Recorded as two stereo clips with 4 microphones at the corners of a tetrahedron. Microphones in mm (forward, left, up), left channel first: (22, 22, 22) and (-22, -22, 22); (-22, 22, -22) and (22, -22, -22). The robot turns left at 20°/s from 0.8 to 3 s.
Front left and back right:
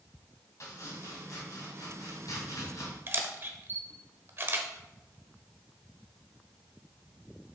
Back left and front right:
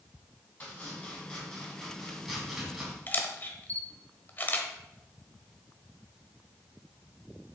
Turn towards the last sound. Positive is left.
turn(degrees=-175)